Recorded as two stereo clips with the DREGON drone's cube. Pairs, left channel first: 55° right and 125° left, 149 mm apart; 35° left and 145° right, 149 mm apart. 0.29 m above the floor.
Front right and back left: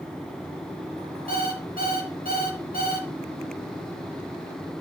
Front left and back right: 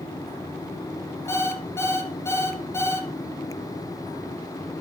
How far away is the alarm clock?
About 1.7 m.